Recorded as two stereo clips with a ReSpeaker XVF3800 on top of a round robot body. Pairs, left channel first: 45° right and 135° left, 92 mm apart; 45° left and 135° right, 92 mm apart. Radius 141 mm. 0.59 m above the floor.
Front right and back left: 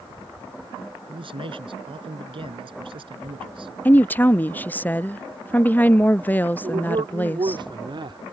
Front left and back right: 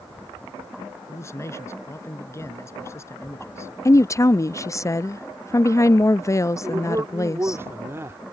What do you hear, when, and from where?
1.1 s a man speaking: 105° left
3.9 s a woman speaking: 15° left
6.6 s a man speaking: 160° left